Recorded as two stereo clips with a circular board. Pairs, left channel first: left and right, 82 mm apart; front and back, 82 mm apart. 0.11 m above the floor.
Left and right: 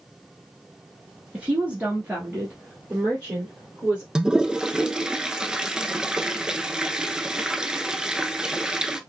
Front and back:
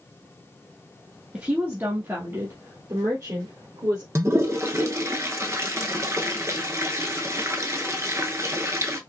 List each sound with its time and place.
1.3 s a woman speaking: 135° right, 1.1 m; by 4.0 s 160° right, 2 m
4.2 s a toilet flushing: 165° right, 0.6 m